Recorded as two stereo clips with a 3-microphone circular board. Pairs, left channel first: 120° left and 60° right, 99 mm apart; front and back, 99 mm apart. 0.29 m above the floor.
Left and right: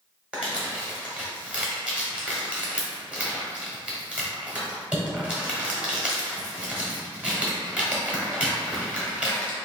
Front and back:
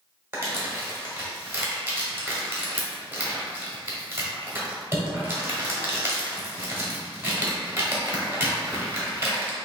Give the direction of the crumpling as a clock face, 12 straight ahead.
4 o'clock.